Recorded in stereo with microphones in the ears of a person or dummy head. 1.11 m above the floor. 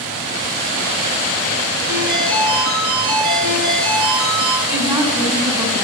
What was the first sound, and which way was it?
A ringtone, 65° right (ahead or behind).